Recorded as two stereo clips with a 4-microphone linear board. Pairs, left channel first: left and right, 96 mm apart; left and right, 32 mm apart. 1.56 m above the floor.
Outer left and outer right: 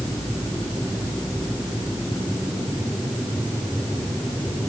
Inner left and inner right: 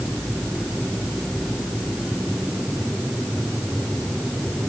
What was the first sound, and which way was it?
Only background noise.